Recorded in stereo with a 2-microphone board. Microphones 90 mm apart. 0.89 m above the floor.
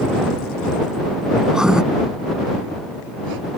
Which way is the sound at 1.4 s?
5° right (ahead or behind).